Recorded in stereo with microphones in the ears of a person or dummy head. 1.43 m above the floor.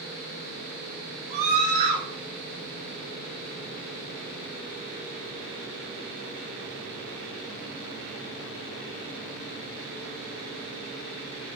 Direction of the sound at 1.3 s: 25° right (ahead or behind).